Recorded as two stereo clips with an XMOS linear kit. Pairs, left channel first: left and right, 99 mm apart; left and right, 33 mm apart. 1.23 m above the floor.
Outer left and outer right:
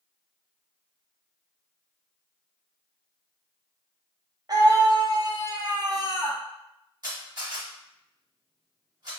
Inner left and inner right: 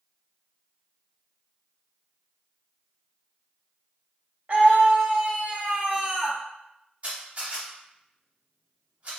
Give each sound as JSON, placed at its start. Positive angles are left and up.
{"t": 4.5, "sound": "a scream", "side_deg": -40, "distance_m": 0.9}
{"t": 7.0, "sound": "a camera shutter", "side_deg": -45, "distance_m": 2.5}